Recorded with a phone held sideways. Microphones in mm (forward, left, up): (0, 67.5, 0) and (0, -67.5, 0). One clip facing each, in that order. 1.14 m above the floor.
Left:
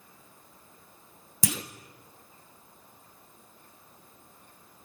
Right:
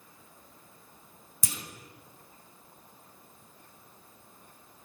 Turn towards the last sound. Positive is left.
turn(degrees=80)